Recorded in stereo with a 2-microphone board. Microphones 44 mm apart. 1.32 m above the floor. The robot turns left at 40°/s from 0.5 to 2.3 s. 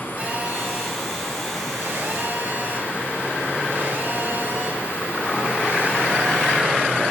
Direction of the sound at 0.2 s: 30° right.